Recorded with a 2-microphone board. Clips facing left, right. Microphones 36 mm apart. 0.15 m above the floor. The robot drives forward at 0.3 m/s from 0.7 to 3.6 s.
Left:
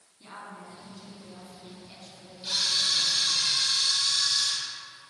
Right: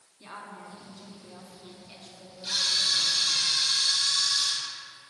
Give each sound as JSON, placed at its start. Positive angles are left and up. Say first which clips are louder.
{"t": 0.2, "sound": "a woman speaking", "louder": "right 1 dB", "side_deg": -15, "distance_m": 1.1}
{"t": 2.4, "sound": "a camera shutter", "louder": "even", "side_deg": 15, "distance_m": 1.8}